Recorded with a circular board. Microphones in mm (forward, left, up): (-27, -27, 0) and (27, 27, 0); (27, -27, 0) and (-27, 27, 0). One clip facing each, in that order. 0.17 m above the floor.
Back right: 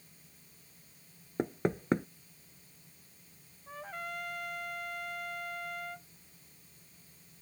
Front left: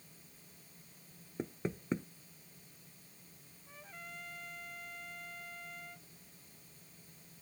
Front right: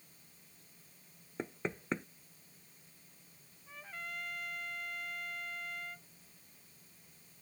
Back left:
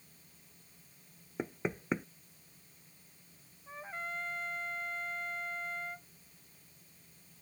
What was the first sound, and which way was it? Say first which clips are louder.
Knocking: back right 8 dB, back left 3 dB; 145° right.